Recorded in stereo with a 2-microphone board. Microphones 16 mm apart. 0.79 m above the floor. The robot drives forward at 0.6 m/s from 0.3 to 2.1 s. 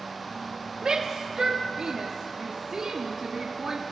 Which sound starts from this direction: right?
A shout, at 0.8 s.